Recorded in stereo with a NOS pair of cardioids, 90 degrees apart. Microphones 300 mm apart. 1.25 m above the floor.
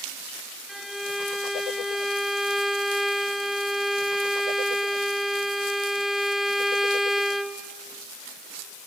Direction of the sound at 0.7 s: Straight ahead.